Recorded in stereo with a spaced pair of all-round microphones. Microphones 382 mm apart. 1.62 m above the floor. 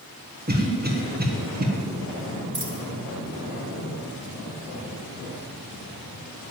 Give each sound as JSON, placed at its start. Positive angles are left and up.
{"t": 0.5, "sound": "a cough", "side_deg": -25, "distance_m": 1.8}
{"t": 2.5, "sound": "a dropped coin", "side_deg": -30, "distance_m": 1.8}